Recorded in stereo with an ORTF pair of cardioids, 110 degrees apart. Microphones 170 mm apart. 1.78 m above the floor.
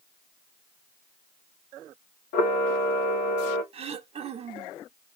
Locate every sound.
2.3 s a camera shutter: 60° left, 1.5 m
3.7 s throat clearing: 35° right, 0.9 m